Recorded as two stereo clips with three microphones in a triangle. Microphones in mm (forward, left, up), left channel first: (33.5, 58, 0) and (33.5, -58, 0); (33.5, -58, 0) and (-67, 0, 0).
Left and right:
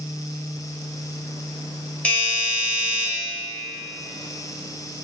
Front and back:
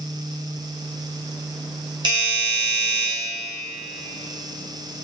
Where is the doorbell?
165° left, 2.5 m.